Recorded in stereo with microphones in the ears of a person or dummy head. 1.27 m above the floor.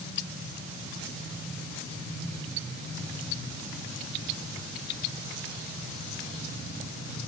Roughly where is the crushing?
No crushing in this recording.